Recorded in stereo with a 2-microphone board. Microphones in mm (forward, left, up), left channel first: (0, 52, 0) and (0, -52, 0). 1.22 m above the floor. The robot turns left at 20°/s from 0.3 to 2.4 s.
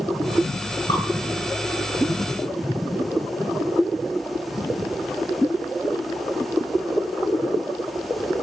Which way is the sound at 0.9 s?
50° left (ahead or behind).